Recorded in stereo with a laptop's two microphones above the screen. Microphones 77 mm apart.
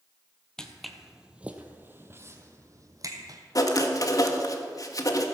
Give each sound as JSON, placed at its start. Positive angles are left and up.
{"t": 0.6, "sound": "footsteps", "side_deg": 10, "distance_m": 1.2}
{"t": 3.5, "sound": "writing", "side_deg": 50, "distance_m": 1.5}